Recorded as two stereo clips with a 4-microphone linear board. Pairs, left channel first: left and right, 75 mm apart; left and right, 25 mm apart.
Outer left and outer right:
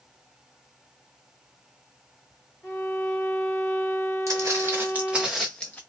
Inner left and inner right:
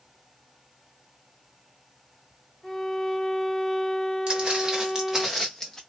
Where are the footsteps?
45° right (ahead or behind), 1.5 m; by 5.8 s 25° left (ahead or behind), 0.9 m.